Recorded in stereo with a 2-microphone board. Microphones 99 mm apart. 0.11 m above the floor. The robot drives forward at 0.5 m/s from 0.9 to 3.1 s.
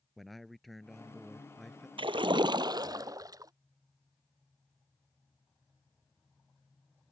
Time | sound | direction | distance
0.2 | a man speaking | centre (ahead or behind) | ?
2.0 | a splash | 65° right (ahead or behind) | ?